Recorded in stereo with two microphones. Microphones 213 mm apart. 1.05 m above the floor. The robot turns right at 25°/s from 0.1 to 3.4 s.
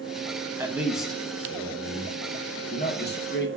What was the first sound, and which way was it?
A man speaking, 10° right (ahead or behind).